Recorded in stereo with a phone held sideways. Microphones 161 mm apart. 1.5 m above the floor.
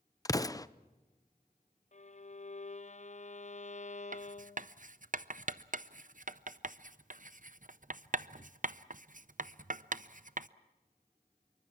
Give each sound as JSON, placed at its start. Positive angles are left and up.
{"t": 0.2, "sound": "an explosion", "side_deg": 20, "distance_m": 0.5}
{"t": 1.9, "sound": "a violin", "side_deg": 50, "distance_m": 0.5}
{"t": 4.1, "sound": "writing", "side_deg": -55, "distance_m": 0.6}